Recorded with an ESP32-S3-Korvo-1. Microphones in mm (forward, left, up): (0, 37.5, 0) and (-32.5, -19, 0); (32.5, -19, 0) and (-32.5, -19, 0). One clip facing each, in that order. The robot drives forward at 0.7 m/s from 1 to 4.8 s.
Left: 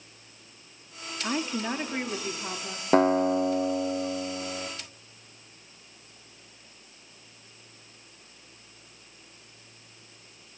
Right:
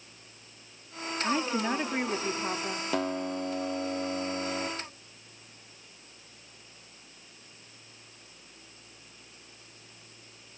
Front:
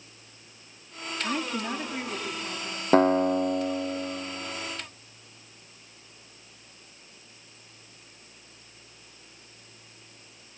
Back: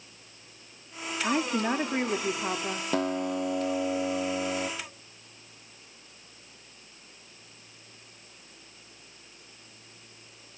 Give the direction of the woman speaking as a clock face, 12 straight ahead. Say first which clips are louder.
Right 1 dB, back 4 dB; 7 o'clock.